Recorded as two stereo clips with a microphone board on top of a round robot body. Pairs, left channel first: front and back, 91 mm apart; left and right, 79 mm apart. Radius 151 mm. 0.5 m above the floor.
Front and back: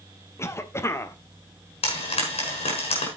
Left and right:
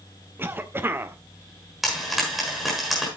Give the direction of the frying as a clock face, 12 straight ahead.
12 o'clock.